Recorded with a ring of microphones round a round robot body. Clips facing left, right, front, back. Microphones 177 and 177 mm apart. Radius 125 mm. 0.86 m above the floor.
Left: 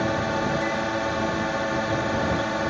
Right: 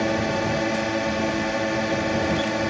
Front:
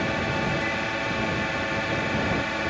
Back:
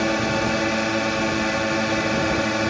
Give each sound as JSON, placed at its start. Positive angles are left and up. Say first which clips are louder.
{"t": 0.0, "sound": "a drone", "louder": "right 2 dB, back 5 dB", "azimuth_deg": -155}